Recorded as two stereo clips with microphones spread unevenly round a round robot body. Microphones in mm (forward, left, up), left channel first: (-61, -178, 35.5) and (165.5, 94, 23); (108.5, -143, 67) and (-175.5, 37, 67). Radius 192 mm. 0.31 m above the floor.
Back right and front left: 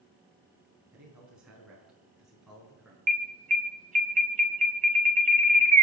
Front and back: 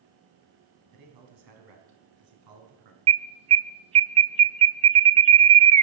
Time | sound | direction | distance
0.9 | a man speaking | 135° left | 4 m
3.1 | an alarm | 95° left | 0.7 m